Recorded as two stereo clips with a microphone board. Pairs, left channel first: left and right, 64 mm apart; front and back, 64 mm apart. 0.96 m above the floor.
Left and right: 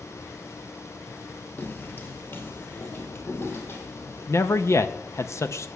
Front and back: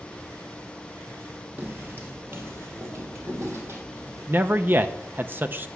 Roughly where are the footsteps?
Behind left.